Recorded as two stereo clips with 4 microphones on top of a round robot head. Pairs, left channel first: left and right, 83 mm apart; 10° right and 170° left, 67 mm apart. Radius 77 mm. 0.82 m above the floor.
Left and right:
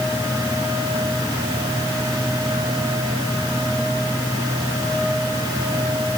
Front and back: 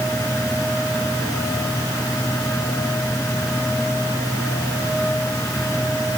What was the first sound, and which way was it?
Only background noise.